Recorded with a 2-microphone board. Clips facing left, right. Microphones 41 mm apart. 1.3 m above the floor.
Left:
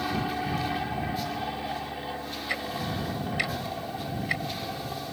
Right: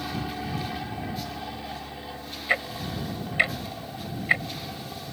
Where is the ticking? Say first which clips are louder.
Right 5 dB; 30° right (ahead or behind).